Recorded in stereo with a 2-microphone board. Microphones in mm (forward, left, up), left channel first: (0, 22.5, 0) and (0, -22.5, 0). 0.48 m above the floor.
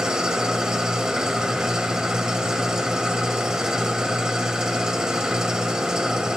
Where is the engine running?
15° right (ahead or behind), 0.9 m.